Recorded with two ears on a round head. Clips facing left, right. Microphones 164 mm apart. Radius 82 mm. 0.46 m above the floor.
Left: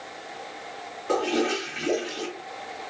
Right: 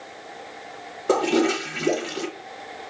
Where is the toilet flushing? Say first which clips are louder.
Right 5 dB; 60° right (ahead or behind), 1.2 m.